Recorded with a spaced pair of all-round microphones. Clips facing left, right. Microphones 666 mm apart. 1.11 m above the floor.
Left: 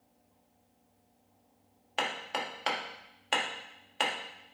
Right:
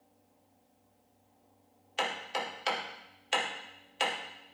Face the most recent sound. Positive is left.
turn(degrees=85)